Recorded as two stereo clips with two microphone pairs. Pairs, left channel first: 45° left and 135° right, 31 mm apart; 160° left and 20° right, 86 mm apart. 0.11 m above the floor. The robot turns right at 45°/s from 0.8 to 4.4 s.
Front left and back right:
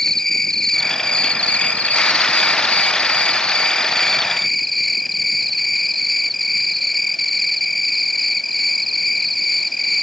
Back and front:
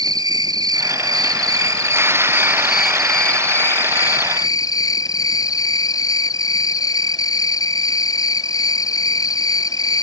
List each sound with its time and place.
0.0 s an insect: 25° right; by 10.0 s 135° left